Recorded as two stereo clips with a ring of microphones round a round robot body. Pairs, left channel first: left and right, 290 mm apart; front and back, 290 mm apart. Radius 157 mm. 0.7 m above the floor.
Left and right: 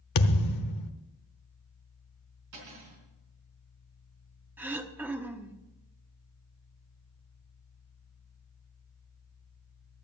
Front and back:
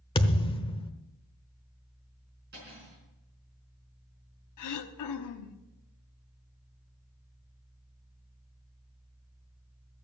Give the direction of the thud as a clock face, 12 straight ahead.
10 o'clock.